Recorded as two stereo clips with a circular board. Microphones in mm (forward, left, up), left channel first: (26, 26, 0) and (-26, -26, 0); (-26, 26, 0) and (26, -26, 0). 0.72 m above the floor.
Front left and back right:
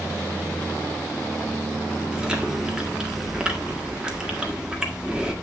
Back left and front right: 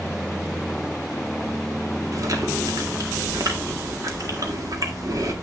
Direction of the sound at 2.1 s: 60° right.